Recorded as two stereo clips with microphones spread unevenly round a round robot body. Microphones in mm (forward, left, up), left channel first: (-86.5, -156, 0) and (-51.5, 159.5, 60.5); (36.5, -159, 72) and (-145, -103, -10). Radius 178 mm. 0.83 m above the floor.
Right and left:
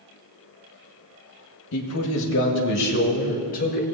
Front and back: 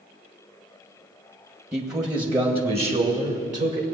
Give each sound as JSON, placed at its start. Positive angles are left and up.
{"t": 1.7, "sound": "a man speaking", "azimuth_deg": -125, "distance_m": 1.3}